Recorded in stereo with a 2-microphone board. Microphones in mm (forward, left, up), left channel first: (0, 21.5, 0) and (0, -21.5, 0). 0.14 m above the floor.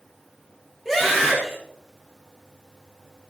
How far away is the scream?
About 4 m.